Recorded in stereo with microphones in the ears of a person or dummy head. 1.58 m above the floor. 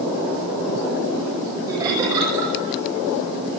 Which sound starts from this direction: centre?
Laughter, at 1.7 s.